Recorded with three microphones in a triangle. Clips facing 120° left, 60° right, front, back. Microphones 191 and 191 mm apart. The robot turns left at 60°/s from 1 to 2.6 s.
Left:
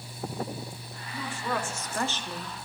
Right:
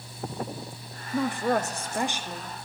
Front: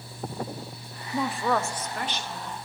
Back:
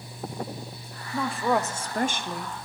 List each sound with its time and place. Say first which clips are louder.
1.1 s a woman speaking: right 8 dB, back 1 dB; 75° right, 0.9 m; by 2.6 s 165° right, 0.9 m